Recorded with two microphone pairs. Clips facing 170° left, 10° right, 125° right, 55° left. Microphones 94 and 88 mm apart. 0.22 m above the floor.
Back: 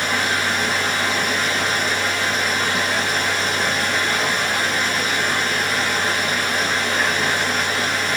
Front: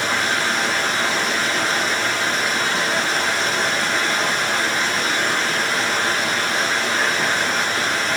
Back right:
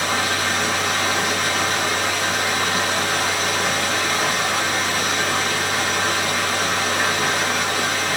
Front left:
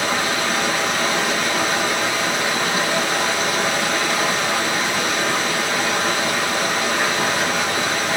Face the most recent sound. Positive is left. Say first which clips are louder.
# even, front left 1 dB
turn(degrees=50)